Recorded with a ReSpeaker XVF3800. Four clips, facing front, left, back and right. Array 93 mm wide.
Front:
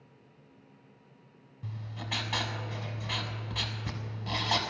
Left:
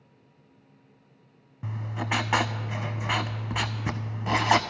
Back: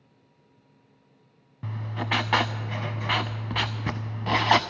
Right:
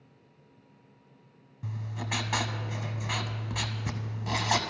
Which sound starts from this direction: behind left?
Writing, at 1.6 s.